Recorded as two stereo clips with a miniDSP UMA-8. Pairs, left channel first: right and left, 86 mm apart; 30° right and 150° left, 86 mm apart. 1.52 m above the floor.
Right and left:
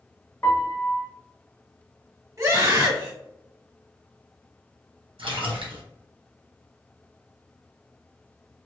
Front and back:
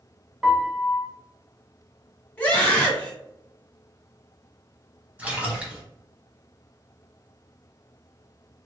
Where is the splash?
75° left, 1.1 m.